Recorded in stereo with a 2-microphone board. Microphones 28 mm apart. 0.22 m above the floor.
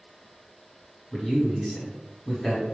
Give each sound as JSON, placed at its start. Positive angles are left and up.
{"t": 1.1, "sound": "a man speaking", "side_deg": 15, "distance_m": 1.2}